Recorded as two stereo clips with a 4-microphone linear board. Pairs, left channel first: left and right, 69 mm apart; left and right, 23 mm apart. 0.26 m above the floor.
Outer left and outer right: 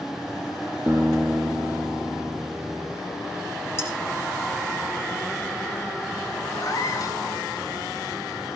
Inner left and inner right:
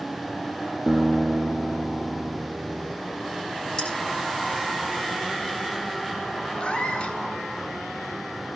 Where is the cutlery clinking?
35° left (ahead or behind), 8 m.